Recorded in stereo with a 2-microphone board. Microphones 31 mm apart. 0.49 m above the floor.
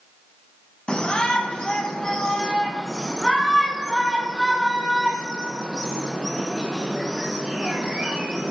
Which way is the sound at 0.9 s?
30° left (ahead or behind).